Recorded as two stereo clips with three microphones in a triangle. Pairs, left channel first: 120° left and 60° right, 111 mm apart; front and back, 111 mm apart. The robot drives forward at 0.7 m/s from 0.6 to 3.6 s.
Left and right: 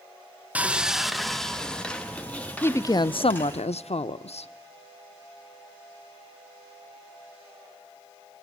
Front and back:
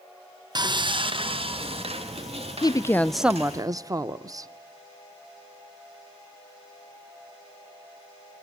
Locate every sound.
0.6 s sawing: 135° right, 0.9 m; by 3.6 s 170° right, 3 m
2.6 s a woman speaking: 50° left, 0.6 m; by 4.5 s 125° left, 0.6 m